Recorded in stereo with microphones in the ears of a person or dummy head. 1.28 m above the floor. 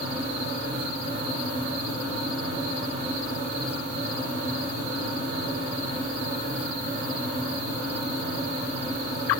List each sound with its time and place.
0.0 s a fan: 50° right (ahead or behind), 0.7 m